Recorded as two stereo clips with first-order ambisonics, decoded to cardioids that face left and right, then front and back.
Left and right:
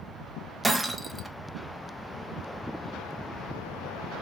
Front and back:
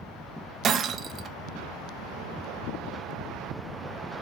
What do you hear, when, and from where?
0.6 s breaking glass: 175° right, 0.6 m